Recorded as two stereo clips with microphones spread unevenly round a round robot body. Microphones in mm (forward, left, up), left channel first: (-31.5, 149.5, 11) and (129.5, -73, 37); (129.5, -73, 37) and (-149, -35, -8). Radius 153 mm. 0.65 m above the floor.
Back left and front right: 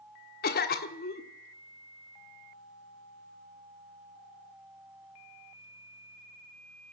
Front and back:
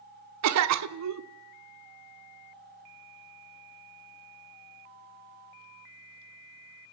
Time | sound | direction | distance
0.4 | a cough | straight behind | 1.2 m